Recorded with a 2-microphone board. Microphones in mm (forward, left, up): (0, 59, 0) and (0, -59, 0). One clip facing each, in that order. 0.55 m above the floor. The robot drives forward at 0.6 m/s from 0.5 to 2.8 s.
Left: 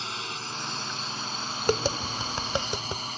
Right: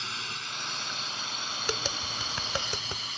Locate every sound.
0.0 s a drone: 35° left (ahead or behind); by 3.2 s 40° left (ahead or behind)
1.7 s tapping: 45° left (ahead or behind); by 3.1 s 20° left (ahead or behind)